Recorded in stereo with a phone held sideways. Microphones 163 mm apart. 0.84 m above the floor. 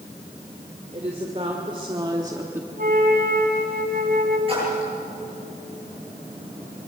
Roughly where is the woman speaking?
Right.